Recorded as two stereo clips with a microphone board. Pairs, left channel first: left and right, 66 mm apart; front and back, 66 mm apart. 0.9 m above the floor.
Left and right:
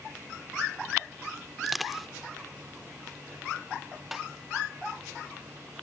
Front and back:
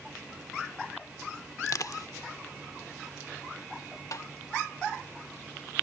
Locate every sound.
1.6 s crushing: straight ahead
4.1 s tapping: 5° right